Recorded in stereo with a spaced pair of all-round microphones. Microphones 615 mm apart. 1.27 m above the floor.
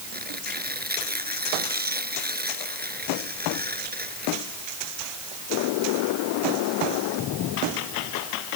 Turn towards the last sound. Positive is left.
turn(degrees=-15)  # may be behind; listen again after turning